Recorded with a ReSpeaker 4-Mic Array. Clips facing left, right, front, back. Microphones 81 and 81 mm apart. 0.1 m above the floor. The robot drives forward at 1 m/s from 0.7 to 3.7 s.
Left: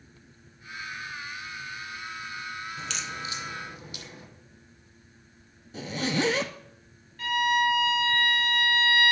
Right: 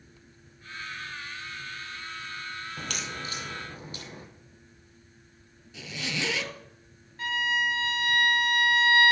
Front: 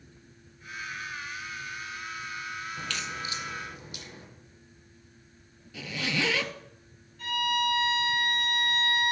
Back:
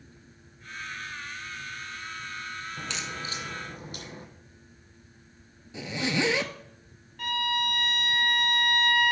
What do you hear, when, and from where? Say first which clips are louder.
2.8 s a crack: left 1 dB, even; 105° right, 1.1 m; by 4.3 s 140° right, 1.6 m
5.7 s a zipper: left 7 dB, back 3 dB; 120° left, 0.8 m
7.2 s a violin: left 4 dB, front 1 dB; 155° right, 4 m